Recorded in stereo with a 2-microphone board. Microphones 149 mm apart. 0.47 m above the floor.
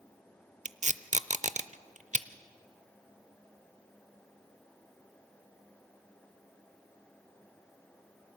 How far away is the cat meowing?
No cat meowing in this recording.